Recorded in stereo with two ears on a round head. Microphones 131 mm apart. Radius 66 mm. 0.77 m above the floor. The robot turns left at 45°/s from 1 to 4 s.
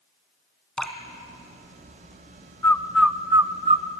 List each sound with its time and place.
0.8 s dripping: 5° left (ahead or behind), 2 m
2.6 s a bird: 15° left (ahead or behind), 0.6 m; by 3.9 s 40° right (ahead or behind), 0.6 m